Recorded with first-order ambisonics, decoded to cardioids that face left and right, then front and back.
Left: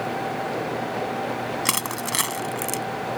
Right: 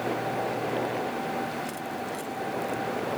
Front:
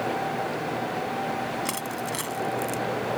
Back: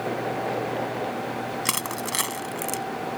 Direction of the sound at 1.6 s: 115° left.